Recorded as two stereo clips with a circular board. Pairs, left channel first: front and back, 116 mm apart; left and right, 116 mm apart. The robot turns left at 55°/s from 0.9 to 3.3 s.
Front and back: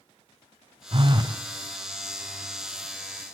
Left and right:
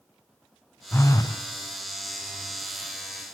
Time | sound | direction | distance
0.9 | a phone buzzing | 155° left | 0.6 m